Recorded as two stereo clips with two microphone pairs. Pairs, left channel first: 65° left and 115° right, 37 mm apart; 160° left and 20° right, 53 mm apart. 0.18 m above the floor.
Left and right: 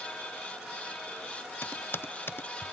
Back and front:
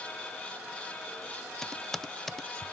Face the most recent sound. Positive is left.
turn(degrees=75)